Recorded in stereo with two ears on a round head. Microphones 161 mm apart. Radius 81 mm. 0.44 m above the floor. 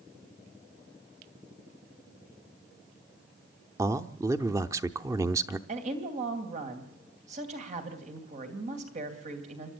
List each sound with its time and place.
3.8 s a man speaking: 15° right (ahead or behind), 0.7 m
5.7 s a woman speaking: 45° right (ahead or behind), 3 m